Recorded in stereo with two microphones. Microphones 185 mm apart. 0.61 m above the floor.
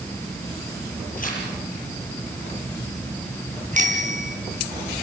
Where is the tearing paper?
50° left (ahead or behind), 8.5 m.